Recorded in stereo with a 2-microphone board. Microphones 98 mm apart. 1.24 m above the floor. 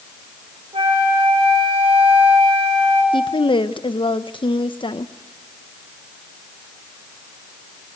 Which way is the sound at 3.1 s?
60° left (ahead or behind).